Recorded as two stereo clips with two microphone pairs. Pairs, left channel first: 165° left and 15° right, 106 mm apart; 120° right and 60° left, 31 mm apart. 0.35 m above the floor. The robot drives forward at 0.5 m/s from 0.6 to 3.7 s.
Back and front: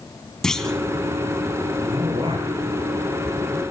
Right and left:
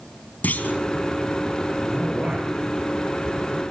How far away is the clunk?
About 3.5 m.